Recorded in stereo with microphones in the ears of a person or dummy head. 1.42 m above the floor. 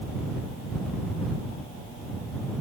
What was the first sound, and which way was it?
Only background noise.